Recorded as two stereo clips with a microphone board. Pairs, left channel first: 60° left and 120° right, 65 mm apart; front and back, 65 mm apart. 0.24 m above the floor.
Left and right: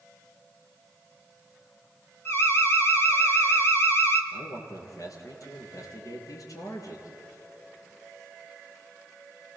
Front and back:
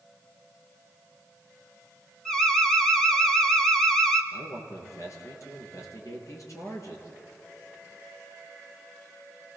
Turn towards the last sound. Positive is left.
turn(degrees=35)